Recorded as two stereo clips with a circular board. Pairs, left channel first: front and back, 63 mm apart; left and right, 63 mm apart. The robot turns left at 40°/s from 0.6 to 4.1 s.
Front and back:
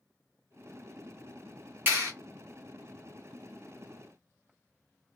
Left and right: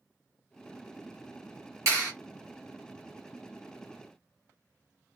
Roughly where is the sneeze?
No sneeze in this recording.